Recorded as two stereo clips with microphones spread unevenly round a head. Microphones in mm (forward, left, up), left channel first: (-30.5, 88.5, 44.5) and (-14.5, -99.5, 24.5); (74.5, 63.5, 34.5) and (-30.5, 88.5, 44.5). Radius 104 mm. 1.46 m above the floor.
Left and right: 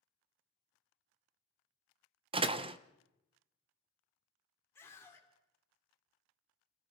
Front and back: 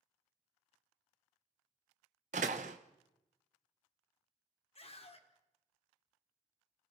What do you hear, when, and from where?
2.3 s a door slam: 150° right, 0.8 m
4.8 s a scream: 15° left, 3.5 m